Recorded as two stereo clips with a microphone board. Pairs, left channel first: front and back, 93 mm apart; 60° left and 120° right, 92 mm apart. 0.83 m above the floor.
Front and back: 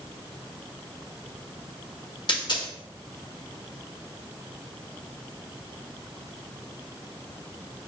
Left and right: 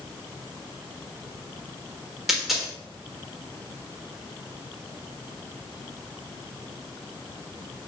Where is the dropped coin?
35° right, 1.1 m.